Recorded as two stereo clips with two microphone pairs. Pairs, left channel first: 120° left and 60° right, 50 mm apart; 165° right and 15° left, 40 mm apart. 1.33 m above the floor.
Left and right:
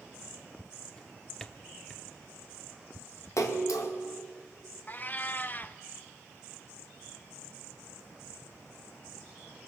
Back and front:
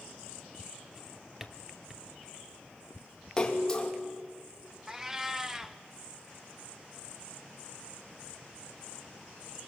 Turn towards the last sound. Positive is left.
turn(degrees=85)